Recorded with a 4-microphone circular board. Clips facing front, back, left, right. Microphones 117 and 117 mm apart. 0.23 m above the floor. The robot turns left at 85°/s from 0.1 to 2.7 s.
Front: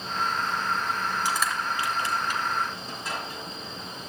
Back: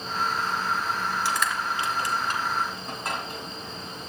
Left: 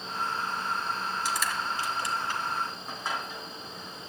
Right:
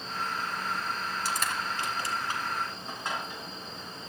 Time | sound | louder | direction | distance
1.2 | crushing | back 1 dB, even | 70° right | 2 m